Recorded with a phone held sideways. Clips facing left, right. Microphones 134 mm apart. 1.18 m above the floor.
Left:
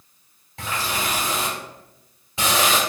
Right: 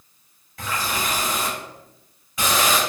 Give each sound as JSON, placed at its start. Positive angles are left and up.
{"t": 0.6, "sound": "a running tap", "side_deg": 25, "distance_m": 1.8}